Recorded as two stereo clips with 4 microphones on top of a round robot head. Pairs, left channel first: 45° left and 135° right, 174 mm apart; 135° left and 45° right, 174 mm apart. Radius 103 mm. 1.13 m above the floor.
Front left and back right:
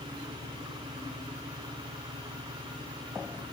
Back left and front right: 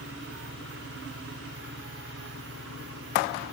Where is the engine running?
70° right.